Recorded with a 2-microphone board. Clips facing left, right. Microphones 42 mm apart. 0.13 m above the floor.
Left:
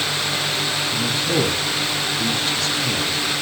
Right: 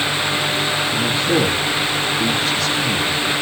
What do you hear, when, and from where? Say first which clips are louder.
0.9 s a man speaking: right 3 dB; centre (ahead or behind), 4.5 m